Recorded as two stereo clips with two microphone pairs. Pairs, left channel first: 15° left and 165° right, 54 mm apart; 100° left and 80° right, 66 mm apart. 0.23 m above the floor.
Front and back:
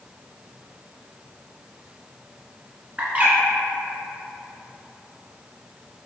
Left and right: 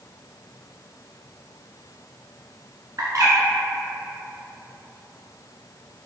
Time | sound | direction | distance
3.0 | a bird | 105° right | 1.0 m